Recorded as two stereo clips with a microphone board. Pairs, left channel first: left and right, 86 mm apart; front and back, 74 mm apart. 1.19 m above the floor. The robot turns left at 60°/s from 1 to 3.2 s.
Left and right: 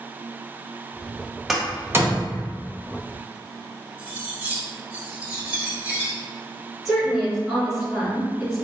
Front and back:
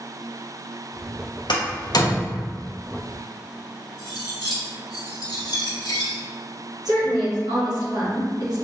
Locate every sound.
1.5 s a door slam: straight ahead, 0.7 m; by 2.5 s 60° right, 0.7 m
4.0 s cutlery clinking: 20° right, 0.9 m
6.8 s a woman speaking: 175° right, 1.9 m